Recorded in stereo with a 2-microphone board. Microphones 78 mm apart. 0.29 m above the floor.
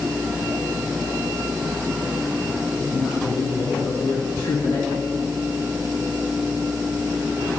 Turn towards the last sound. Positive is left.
turn(degrees=60)  # may be behind; listen again after turning